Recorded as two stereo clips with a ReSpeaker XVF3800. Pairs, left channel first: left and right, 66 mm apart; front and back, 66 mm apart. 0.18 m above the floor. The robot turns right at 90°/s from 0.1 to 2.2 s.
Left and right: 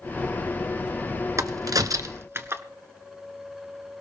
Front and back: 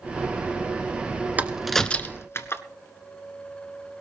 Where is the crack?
120° right, 1.2 m; by 2.6 s 45° right, 1.2 m.